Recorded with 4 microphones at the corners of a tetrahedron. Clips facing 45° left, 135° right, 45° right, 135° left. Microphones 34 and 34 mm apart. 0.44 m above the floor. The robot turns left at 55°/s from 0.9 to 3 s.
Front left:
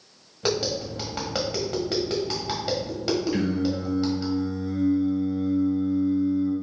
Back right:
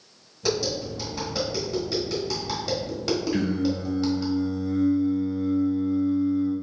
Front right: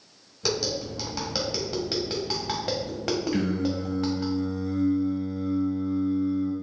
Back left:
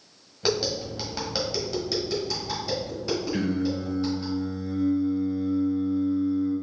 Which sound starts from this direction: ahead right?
Singing, at 3.3 s.